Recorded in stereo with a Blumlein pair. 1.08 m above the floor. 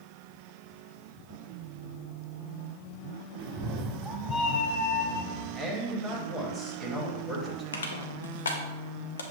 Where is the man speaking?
15° right, 1.4 m.